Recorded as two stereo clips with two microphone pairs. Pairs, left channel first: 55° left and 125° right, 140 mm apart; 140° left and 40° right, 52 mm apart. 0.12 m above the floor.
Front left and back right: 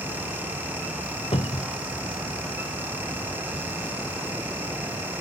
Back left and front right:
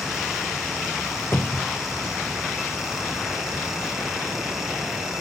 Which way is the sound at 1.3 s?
95° left.